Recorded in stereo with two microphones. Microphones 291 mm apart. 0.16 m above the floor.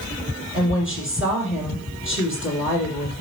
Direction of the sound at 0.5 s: 40° left (ahead or behind).